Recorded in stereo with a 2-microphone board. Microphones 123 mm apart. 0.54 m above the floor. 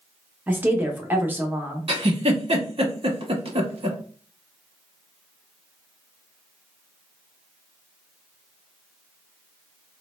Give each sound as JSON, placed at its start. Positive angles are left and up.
{"t": 0.5, "sound": "a woman speaking", "side_deg": -15, "distance_m": 0.7}
{"t": 1.9, "sound": "a giggle", "side_deg": -55, "distance_m": 0.6}